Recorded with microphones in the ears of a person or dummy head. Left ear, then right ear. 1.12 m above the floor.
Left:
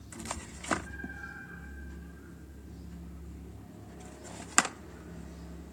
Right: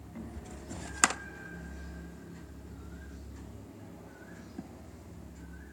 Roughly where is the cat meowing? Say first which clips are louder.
Left 6 dB; right.